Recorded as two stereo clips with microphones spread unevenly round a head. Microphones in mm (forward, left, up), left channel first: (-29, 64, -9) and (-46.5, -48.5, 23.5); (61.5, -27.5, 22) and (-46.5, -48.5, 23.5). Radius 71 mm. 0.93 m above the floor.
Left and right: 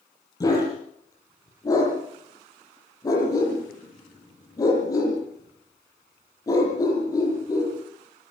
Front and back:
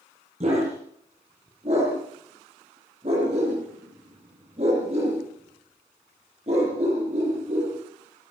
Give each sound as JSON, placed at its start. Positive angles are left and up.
{"t": 0.4, "sound": "a dog barking", "azimuth_deg": 145, "distance_m": 9.0}